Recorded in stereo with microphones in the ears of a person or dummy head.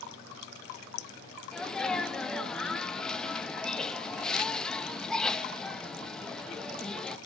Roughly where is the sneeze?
Centre.